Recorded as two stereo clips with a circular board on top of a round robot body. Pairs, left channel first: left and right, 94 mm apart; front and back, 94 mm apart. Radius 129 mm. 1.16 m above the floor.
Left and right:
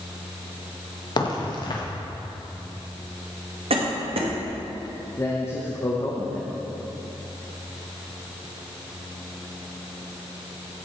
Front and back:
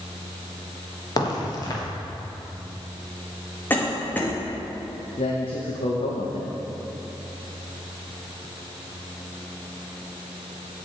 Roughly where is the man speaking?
Ahead left.